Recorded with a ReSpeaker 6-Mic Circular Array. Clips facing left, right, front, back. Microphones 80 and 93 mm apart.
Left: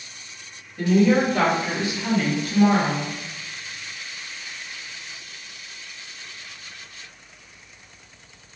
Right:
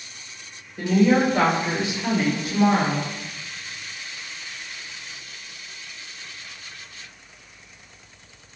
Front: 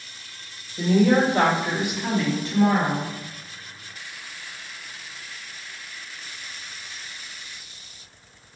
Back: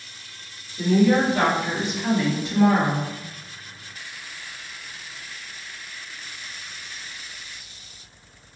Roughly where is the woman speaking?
Ahead right.